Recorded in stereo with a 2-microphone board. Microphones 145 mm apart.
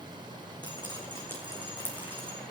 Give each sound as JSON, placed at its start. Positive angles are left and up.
{"t": 0.6, "sound": "dripping", "side_deg": 30, "distance_m": 2.5}